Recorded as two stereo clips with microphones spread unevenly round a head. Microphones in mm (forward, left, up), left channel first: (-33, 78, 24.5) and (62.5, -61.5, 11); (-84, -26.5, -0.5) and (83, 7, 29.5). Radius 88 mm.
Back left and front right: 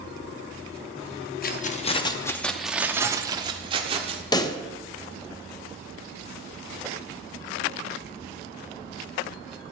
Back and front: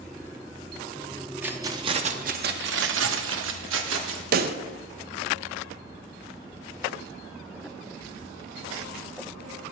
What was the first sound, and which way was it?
Keys jangling, 90° left.